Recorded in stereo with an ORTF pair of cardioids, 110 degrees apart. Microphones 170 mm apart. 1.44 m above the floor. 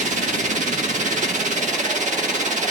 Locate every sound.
0.0 s a machine running: 45° right, 1.7 m